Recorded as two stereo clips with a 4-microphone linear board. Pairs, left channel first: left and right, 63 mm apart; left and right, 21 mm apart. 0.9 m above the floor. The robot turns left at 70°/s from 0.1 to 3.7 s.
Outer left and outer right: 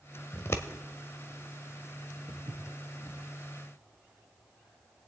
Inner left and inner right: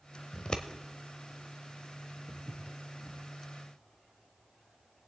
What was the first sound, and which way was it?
Scissors, 35° left (ahead or behind).